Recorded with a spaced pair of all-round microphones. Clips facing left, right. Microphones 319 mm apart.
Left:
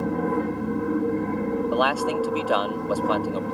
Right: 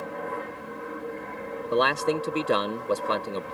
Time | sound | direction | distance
0.0 | an aircraft | 65° left (ahead or behind) | ?
1.7 | a man speaking | 30° right (ahead or behind) | ?